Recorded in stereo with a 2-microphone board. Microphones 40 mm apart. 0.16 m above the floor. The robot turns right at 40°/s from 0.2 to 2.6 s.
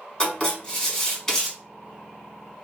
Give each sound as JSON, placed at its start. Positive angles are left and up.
{"t": 0.2, "sound": "writing", "side_deg": 25, "distance_m": 1.4}